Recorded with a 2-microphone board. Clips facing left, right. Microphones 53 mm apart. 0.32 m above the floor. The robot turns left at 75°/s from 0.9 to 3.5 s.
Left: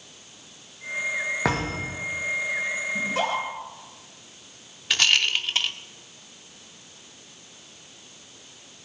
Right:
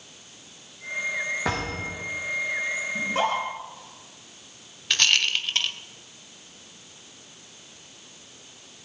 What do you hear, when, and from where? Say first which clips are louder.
1.4 s a thud: left 2 dB; 85° left, 4.5 m; by 2.1 s 40° left, 4.5 m
3.0 s a scream: right 2 dB; 20° right (ahead or behind), 5 m; by 3.5 s 55° right (ahead or behind), 5 m
4.9 s a rattle: left 1 dB; 5° left (ahead or behind), 1.1 m